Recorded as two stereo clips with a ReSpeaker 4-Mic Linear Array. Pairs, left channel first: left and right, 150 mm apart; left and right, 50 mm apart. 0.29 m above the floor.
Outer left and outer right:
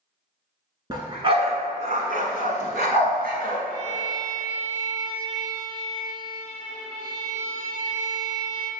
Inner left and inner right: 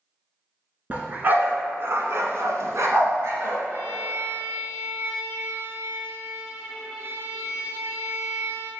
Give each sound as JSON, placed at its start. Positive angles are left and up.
{"t": 0.9, "sound": "a dog barking", "side_deg": -30, "distance_m": 1.1}
{"t": 3.7, "sound": "a violin", "side_deg": 10, "distance_m": 1.6}